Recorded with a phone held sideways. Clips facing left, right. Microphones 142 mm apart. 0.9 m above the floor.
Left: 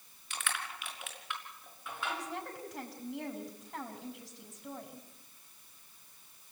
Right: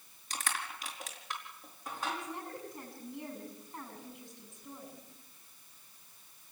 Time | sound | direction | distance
0.3 | crushing | 35° right (ahead or behind) | 5 m
2.1 | a woman speaking | 80° left | 6.5 m